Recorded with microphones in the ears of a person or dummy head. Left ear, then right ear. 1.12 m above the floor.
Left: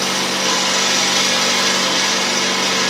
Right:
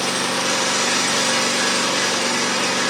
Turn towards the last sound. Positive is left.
turn(degrees=30)  # may be behind; listen again after turning